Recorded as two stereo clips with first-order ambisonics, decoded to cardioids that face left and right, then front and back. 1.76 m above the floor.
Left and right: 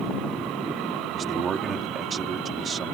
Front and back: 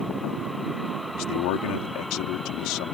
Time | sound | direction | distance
1.1 | a man speaking | 25° right | ?